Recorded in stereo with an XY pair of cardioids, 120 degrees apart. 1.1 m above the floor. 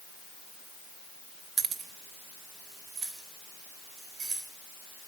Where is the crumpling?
I don't hear crumpling.